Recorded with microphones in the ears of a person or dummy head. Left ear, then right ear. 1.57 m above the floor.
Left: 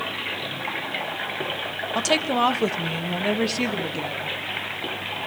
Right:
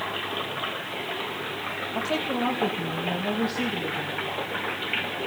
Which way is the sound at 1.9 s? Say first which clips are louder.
Left 7 dB; 60° left (ahead or behind).